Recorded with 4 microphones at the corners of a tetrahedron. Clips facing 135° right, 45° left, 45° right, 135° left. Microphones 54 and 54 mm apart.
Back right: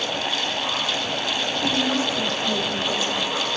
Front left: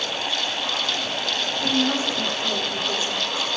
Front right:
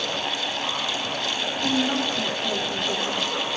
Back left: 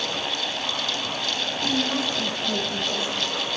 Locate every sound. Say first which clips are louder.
1.6 s a woman speaking: front left 1 dB, front right 2 dB; 15° right, 7.5 m; by 3.5 s 10° right, 10 m